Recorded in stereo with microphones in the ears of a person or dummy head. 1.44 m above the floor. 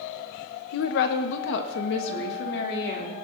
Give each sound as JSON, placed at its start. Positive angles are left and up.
{"t": 0.7, "sound": "a woman speaking", "side_deg": 65, "distance_m": 0.7}